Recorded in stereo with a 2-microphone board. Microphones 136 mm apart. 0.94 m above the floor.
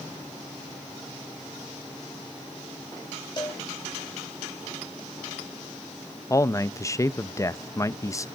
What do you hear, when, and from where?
3.4 s a cowbell: 35° left (ahead or behind), 2 m
6.3 s a man speaking: 25° left (ahead or behind), 0.6 m